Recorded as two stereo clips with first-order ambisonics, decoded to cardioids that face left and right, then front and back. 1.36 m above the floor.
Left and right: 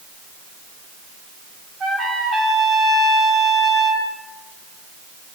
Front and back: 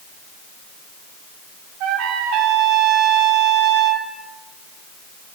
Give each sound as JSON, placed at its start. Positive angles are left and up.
{"t": 1.8, "sound": "a trumpet", "azimuth_deg": -160, "distance_m": 3.0}